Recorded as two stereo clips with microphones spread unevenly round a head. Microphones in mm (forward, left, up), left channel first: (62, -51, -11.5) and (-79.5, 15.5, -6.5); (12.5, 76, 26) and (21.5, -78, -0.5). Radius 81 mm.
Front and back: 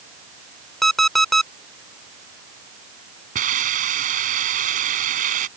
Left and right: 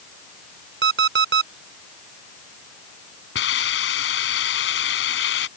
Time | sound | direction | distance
0.8 | an alarm clock | 115° right | ?
3.4 | a hiss | 110° left | ?